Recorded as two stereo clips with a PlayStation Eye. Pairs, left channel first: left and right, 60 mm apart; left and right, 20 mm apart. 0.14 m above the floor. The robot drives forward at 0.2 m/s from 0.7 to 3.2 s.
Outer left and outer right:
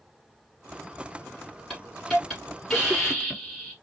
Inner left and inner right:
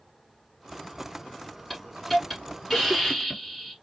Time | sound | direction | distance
1.7 | a hiss | 10° left (ahead or behind) | 1.4 m